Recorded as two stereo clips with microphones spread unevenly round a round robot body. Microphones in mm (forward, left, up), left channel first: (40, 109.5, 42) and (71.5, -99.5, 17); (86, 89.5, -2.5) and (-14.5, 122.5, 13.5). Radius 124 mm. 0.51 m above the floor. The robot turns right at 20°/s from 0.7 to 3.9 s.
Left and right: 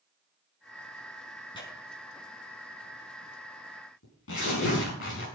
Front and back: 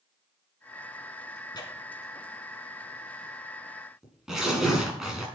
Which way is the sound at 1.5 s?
30° left.